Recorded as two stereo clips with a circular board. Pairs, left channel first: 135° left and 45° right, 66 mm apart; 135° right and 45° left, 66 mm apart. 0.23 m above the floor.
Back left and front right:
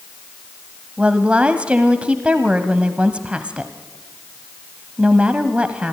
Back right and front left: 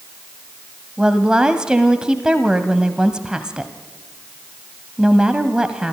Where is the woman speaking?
10° right, 1.1 m.